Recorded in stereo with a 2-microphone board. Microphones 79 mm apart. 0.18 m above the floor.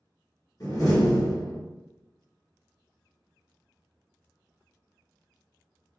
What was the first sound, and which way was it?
A door slam, 50° left (ahead or behind).